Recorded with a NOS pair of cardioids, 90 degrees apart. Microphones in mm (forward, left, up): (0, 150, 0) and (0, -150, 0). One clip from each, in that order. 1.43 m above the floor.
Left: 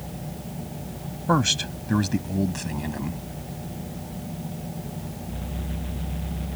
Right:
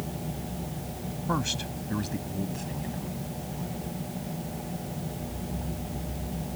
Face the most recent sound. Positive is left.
turn(degrees=70)